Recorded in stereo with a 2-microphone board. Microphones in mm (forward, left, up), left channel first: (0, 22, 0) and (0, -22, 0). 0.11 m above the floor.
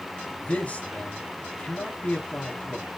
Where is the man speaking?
35° left (ahead or behind), 2.5 m.